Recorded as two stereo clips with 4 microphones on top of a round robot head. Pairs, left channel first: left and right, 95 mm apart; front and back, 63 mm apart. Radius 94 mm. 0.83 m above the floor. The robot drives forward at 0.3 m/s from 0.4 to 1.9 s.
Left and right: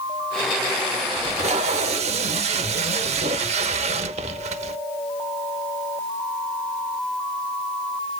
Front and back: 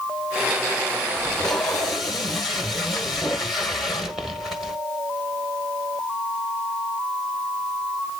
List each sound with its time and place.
1.2 s tape being pulled: 80° right, 1.0 m; by 4.8 s 95° right, 0.9 m